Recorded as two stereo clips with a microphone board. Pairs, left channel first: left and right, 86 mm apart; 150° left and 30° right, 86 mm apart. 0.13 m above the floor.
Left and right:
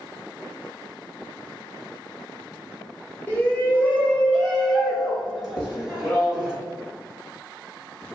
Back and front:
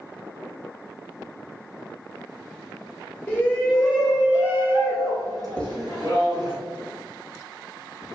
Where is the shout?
125° left, 1.2 m; by 6.5 s 10° right, 2 m.